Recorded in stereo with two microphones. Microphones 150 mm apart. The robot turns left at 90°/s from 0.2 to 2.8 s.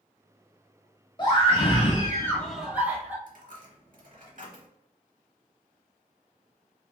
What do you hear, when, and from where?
1.2 s a scream: 125° left, 1.1 m; by 3.2 s 20° right, 1.1 m
3.3 s a dropped coin: 60° right (ahead or behind), 0.8 m